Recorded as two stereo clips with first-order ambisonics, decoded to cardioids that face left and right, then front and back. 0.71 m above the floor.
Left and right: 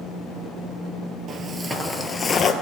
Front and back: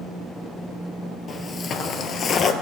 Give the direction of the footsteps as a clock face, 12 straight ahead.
2 o'clock.